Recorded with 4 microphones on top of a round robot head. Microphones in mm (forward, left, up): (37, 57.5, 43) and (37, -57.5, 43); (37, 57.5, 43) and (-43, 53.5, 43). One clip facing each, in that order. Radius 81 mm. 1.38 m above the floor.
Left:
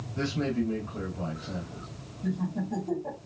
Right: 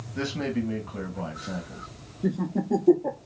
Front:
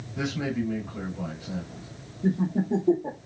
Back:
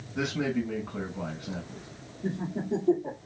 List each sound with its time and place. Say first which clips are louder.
0.1 s a man speaking: even, even; 120° right, 1.1 m
2.2 s laughter: right 5 dB, front 7 dB; 65° right, 0.7 m